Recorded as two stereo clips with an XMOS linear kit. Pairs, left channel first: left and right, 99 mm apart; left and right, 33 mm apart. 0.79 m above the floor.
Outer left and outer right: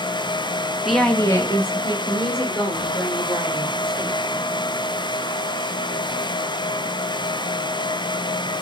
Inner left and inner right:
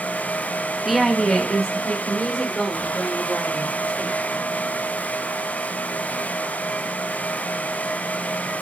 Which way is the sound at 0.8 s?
5° right (ahead or behind).